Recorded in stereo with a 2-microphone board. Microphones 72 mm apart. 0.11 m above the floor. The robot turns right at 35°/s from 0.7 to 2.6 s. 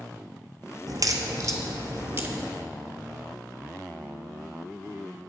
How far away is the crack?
About 0.9 m.